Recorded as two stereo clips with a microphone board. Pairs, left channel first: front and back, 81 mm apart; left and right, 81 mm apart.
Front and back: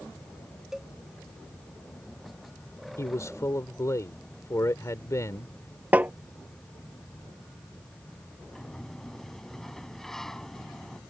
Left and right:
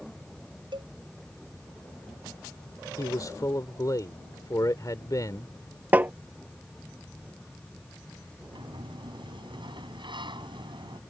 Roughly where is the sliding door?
Right.